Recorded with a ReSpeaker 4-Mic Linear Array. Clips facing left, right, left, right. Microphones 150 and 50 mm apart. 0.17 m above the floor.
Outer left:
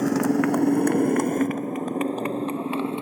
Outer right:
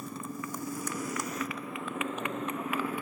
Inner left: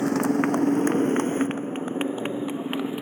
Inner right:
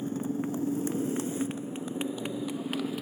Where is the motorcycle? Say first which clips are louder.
Outer left 19 dB, inner left 10 dB; 75° left (ahead or behind); by 3.0 s 25° left (ahead or behind).